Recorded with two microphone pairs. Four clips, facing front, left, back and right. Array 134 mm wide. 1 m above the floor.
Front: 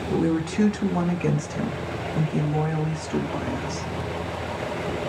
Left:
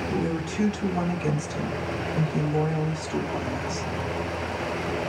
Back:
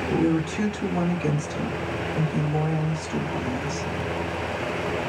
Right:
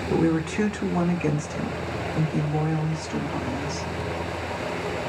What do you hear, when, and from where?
0.1 s a woman speaking: 70° right, 1.1 m; by 3.9 s 10° right, 2.5 m